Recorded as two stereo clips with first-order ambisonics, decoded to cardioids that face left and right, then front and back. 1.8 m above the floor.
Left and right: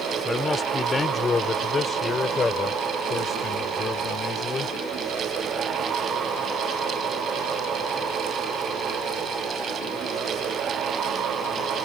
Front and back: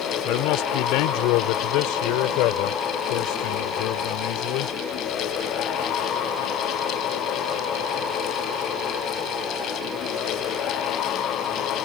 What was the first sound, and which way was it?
A man speaking, 15° left.